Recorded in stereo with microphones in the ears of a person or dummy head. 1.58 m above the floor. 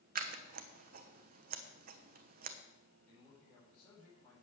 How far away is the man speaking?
About 5 m.